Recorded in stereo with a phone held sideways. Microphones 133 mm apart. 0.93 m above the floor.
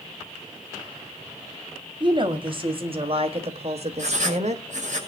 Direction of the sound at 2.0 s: 35° right (ahead or behind).